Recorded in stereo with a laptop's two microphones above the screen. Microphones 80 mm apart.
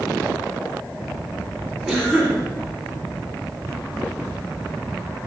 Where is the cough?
5° right (ahead or behind), 3.5 m.